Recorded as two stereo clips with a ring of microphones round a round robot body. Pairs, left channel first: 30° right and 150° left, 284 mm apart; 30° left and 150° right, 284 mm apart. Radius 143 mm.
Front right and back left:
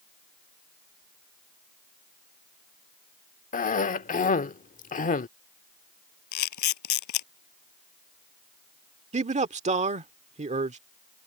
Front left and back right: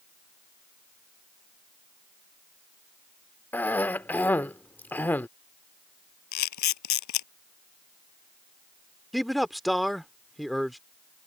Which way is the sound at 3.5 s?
45° right.